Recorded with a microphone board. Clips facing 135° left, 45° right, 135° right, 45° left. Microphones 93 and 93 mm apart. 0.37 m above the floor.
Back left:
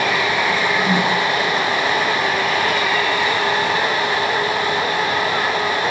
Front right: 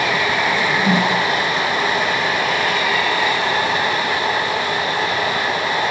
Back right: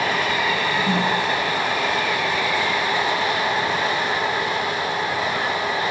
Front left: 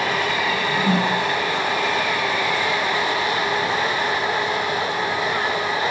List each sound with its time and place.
0.5 s a whoosh: straight ahead, 3 m